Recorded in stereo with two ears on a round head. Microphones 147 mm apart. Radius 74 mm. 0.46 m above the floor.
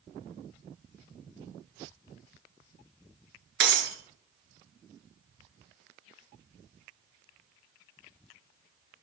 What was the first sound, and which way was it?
Breaking glass, 75° right (ahead or behind).